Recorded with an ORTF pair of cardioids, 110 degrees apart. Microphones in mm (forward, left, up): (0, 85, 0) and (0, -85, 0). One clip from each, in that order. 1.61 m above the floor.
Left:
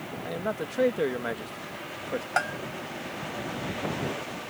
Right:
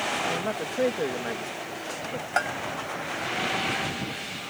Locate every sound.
0.2 s a man speaking: straight ahead; by 2.3 s 35° left
2.4 s a bell: straight ahead